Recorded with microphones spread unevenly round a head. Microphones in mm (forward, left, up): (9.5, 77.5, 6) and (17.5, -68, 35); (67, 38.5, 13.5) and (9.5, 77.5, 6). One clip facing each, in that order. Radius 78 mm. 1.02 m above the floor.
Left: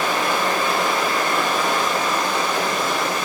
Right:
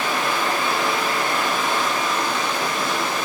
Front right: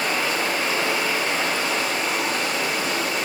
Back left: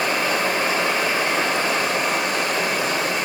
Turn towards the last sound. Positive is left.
turn(degrees=125)